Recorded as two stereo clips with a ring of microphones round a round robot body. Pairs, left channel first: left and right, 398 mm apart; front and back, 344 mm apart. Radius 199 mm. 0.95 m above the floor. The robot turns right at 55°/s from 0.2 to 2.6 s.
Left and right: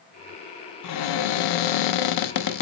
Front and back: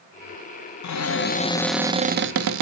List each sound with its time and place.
0.8 s a cupboard door: 40° left, 0.7 m; by 2.6 s 140° left, 0.7 m